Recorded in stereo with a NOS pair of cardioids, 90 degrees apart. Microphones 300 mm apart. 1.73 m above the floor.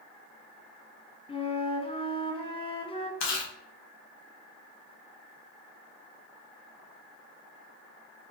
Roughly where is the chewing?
Ahead left.